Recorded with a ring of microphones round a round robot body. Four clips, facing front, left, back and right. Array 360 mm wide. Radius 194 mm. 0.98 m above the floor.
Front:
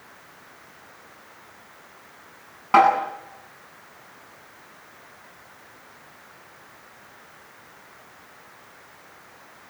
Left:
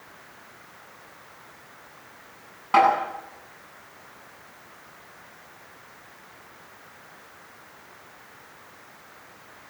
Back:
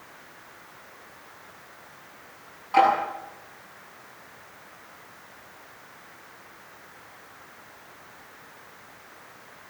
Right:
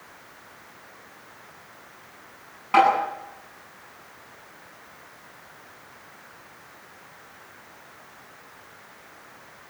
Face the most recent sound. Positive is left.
turn(degrees=10)